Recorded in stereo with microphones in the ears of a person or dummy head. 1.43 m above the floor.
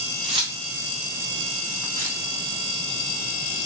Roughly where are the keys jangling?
Right.